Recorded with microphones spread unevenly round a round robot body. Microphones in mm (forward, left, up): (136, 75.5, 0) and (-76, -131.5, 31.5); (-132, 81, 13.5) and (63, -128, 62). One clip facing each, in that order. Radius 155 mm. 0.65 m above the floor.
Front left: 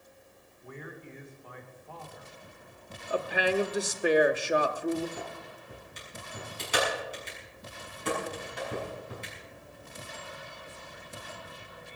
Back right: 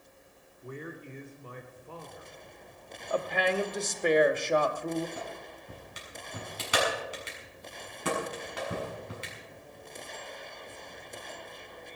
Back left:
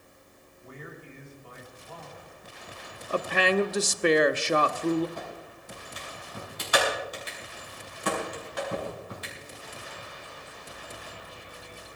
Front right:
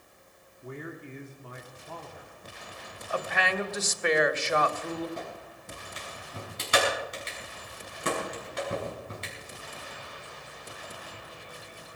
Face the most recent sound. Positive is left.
turn(degrees=-110)